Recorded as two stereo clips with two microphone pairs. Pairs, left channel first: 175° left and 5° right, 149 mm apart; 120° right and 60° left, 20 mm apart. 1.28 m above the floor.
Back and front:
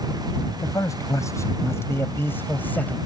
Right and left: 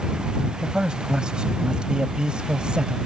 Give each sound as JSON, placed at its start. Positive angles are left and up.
{"t": 0.6, "sound": "a man speaking", "azimuth_deg": 110}